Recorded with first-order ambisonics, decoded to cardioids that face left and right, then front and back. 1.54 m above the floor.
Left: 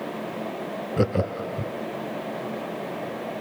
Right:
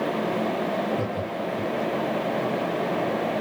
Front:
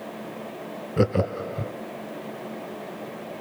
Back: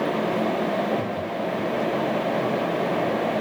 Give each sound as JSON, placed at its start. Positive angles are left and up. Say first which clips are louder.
{"t": 1.0, "sound": "laughter", "louder": "left 3 dB, front 2 dB", "azimuth_deg": 35, "distance_m": 0.7}